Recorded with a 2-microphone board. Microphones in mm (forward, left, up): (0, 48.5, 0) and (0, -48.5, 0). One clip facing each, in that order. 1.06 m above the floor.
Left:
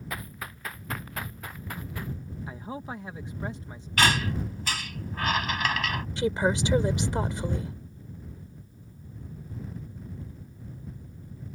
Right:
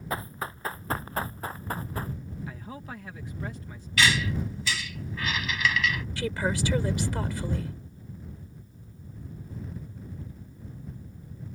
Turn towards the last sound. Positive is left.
turn(degrees=20)  # may be behind; listen again after turning